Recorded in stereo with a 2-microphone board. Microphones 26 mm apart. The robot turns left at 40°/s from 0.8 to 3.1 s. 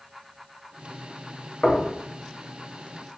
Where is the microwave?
I don't hear a microwave.